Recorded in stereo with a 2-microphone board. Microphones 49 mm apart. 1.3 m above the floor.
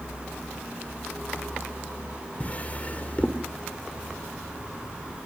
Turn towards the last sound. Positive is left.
turn(degrees=30)  # may be behind; listen again after turning